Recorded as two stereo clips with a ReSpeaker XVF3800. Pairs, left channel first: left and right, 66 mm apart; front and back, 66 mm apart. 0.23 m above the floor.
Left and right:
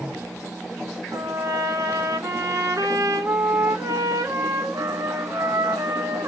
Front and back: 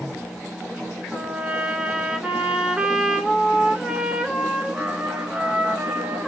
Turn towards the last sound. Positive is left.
turn(degrees=-105)